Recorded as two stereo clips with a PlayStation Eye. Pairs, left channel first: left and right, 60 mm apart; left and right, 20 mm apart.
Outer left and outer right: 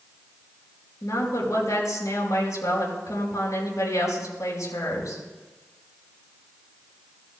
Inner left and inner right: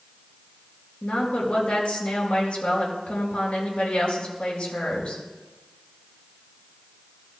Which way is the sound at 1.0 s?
65° left (ahead or behind).